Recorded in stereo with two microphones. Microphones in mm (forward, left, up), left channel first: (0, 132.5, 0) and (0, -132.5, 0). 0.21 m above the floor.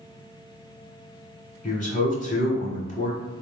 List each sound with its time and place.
1.6 s a man speaking: 30° left (ahead or behind), 1.1 m